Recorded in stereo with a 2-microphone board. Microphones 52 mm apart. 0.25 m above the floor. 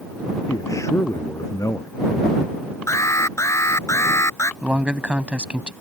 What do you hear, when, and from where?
0.5 s a man speaking: 85° left
2.9 s an alarm: 70° left (ahead or behind)
4.6 s a man speaking: 20° right (ahead or behind)